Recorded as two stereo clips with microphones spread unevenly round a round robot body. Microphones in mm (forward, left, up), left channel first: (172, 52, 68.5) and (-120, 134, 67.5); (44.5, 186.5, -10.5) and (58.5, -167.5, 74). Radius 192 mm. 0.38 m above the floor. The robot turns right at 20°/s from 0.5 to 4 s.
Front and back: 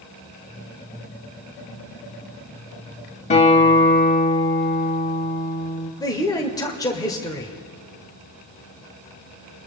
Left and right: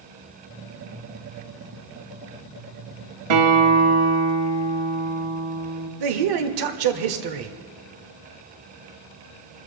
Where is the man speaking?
90° right, 1.4 m.